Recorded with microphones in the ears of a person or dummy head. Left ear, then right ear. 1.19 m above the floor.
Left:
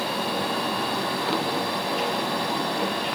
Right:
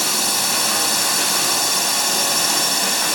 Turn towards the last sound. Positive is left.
turn(degrees=-85)